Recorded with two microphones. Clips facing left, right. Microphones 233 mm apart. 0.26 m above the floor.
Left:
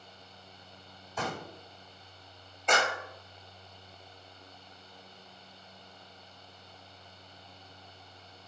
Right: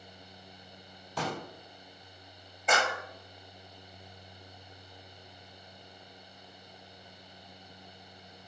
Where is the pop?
85° right, 2 m.